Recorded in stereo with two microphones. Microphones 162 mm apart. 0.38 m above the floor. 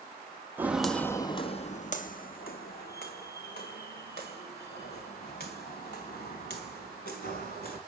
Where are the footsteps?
15° right (ahead or behind), 0.6 m; by 7.8 s 80° left, 4 m.